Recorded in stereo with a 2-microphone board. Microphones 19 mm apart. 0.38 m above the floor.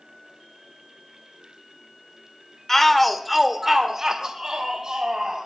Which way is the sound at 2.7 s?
20° left (ahead or behind).